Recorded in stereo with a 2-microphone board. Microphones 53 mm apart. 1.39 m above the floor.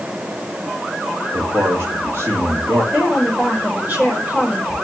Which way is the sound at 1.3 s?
60° right (ahead or behind).